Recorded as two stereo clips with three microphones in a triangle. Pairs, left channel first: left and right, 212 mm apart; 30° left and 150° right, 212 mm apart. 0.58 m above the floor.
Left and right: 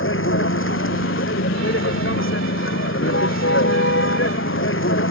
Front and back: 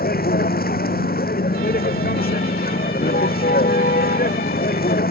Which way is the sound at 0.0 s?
75° left.